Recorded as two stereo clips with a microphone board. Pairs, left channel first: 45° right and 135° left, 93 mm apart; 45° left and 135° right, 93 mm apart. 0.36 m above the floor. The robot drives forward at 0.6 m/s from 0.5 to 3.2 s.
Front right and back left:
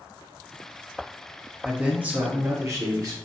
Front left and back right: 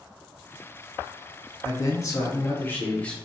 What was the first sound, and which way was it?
A man speaking, 60° left.